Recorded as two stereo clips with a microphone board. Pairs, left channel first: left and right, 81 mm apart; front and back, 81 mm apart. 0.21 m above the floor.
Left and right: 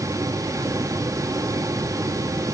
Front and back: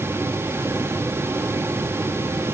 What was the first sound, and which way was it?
Only background noise.